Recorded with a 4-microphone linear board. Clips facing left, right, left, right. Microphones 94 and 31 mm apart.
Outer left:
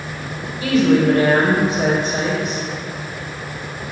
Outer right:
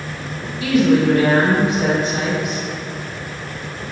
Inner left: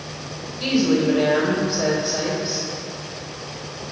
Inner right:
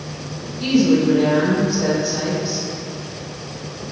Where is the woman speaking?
50° left (ahead or behind), 1.9 m.